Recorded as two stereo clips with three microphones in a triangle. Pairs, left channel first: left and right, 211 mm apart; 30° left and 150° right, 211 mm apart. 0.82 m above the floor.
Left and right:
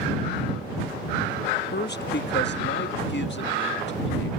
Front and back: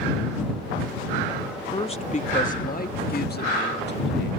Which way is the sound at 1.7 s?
85° left.